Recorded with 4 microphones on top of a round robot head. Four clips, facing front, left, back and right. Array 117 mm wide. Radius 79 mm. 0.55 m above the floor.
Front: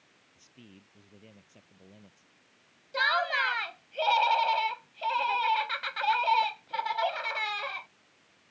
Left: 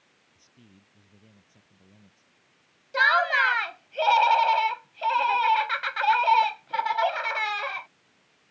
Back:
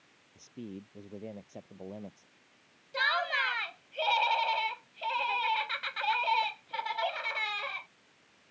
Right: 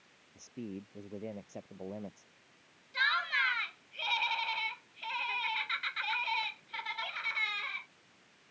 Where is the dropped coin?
I don't hear a dropped coin.